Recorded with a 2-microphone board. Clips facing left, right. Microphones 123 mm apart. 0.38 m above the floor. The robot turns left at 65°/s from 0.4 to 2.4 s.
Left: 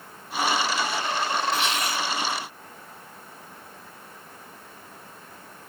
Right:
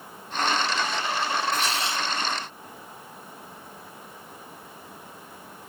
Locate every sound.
1.5 s tearing paper: 130° right, 1.7 m; by 2.1 s 165° right, 1.7 m